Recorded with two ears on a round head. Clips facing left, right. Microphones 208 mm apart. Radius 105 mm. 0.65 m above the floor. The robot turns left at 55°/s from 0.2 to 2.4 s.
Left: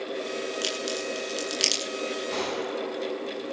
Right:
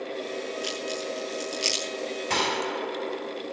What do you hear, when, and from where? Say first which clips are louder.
0.6 s a crack: left 1 dB; 45° left (ahead or behind), 9.5 m; by 1.8 s 65° left (ahead or behind), 9.5 m
2.3 s a gunshot: even; 85° right, 3.5 m; by 3.4 s 80° right, 3.5 m